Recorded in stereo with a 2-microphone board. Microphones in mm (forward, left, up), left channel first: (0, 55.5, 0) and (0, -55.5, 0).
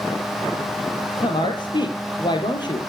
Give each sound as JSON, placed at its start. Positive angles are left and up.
{"t": 1.2, "sound": "a woman speaking", "side_deg": 40, "distance_m": 3.5}